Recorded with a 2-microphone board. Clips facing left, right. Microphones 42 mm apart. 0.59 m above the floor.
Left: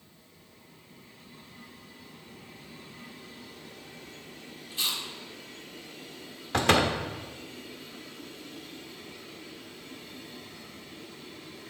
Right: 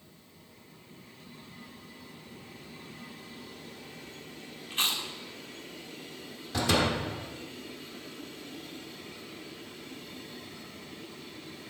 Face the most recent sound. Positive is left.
turn(degrees=55)  # may be behind; listen again after turning